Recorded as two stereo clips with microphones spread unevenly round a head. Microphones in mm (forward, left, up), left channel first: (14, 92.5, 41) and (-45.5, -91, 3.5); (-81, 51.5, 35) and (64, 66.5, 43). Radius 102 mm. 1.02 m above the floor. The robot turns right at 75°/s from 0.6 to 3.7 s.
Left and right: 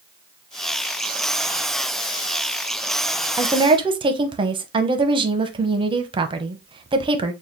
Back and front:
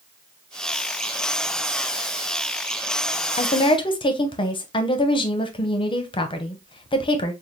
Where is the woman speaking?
170° right, 0.7 m; by 7.3 s 145° right, 0.7 m.